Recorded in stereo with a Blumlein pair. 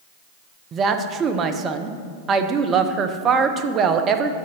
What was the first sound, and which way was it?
A woman speaking, 25° right.